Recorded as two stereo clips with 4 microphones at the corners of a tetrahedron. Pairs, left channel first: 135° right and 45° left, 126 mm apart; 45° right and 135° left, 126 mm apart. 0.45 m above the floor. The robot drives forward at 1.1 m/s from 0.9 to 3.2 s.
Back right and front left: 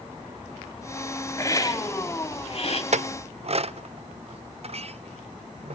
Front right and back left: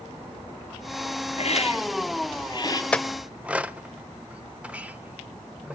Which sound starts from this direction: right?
A hiss, at 1.4 s.